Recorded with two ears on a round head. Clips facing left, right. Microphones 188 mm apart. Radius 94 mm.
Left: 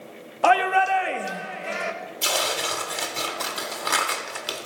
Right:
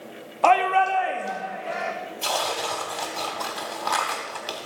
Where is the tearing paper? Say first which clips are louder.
Even; 25° left (ahead or behind), 1.2 m.